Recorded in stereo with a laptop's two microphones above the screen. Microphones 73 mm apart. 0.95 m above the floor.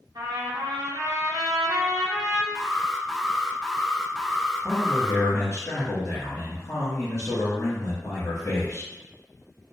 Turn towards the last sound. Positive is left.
turn(degrees=50)  # may be behind; listen again after turning